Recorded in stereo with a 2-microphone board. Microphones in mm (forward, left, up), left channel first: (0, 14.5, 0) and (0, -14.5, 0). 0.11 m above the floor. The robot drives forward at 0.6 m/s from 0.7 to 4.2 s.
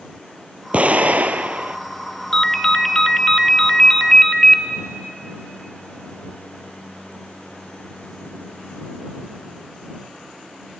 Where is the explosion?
50° right (ahead or behind), 0.8 m; by 1.8 s 55° right (ahead or behind), 0.7 m.